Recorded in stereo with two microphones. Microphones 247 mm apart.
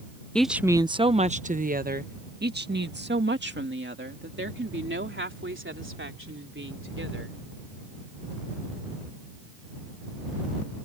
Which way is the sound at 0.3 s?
5° left (ahead or behind).